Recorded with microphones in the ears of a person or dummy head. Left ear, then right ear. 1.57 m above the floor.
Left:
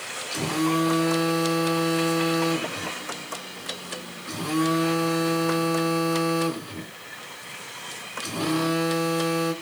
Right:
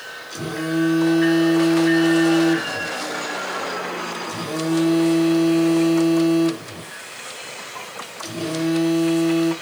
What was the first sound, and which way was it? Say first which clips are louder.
A phone buzzing: even; 20° left (ahead or behind).